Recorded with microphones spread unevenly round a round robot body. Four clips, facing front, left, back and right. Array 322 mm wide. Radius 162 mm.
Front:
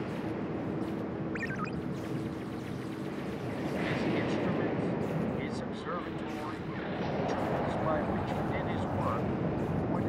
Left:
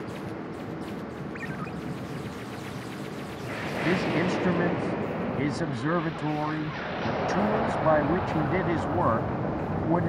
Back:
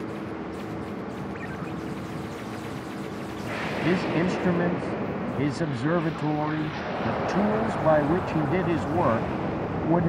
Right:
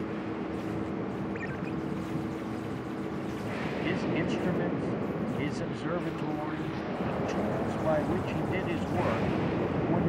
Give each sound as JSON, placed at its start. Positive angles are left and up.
{"t": 1.4, "sound": "a ringtone", "azimuth_deg": -25}
{"t": 3.8, "sound": "a man speaking", "azimuth_deg": 160}